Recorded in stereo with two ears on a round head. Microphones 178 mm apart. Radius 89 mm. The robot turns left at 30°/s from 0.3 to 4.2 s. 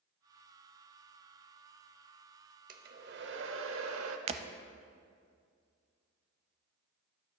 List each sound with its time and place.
2.7 s a hair dryer: 45° right, 0.9 m; by 4.2 s 90° right, 0.9 m
4.3 s breaking glass: 30° right (ahead or behind), 0.6 m